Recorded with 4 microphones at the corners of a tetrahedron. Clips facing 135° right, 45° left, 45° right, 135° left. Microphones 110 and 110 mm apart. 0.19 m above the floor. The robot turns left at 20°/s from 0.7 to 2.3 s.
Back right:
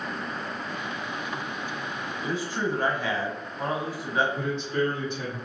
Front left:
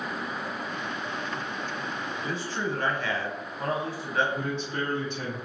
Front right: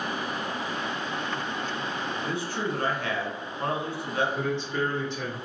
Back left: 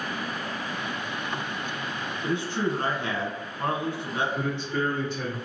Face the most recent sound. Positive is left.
turn(degrees=65)